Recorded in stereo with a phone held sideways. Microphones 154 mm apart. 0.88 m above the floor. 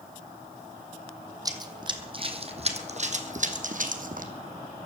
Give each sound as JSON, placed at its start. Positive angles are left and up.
{"t": 1.4, "sound": "running footsteps", "side_deg": -25, "distance_m": 1.7}